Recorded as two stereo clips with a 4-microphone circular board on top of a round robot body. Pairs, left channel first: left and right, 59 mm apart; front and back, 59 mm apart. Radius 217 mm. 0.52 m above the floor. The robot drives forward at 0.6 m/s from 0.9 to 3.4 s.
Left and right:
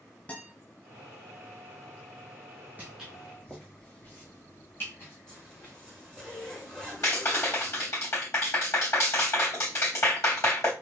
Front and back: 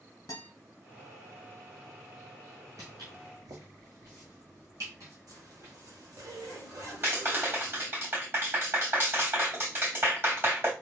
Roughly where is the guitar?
Ahead left.